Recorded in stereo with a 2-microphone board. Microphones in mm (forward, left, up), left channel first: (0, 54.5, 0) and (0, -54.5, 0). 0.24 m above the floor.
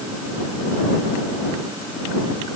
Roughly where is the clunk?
I don't hear a clunk.